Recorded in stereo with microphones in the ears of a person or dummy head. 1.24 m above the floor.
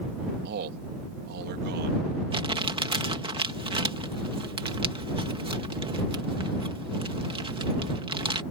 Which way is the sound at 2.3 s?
30° right (ahead or behind).